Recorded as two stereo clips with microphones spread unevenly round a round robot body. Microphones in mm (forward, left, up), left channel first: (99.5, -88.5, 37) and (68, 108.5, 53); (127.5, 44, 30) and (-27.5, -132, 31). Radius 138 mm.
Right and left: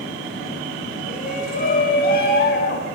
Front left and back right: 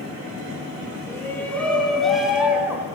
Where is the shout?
30° right, 4.5 m; by 2.9 s 50° right, 4 m.